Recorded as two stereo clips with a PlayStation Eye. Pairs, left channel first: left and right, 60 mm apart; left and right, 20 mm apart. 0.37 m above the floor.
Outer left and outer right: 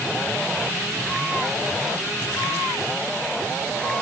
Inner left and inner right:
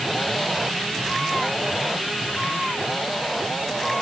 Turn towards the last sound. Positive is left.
No sound to turn to.